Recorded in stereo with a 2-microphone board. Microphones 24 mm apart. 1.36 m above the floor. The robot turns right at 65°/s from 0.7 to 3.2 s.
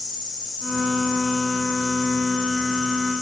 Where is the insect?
120° left, 2 m; by 3.2 s 80° right, 2 m.